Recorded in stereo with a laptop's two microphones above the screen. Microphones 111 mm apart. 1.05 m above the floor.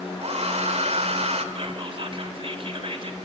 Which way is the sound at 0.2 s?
65° right (ahead or behind).